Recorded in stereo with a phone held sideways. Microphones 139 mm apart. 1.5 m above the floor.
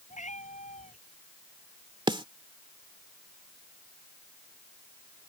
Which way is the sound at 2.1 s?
35° right (ahead or behind).